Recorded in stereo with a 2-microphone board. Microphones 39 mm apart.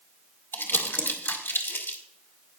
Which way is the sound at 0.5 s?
65° left (ahead or behind).